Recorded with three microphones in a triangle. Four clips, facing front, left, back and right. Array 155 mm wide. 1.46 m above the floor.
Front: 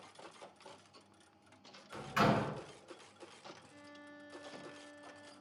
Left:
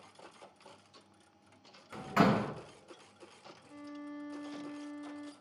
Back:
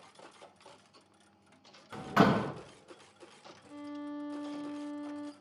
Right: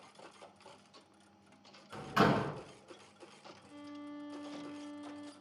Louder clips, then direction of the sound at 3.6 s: Left 2 dB, back 14 dB; 175° left.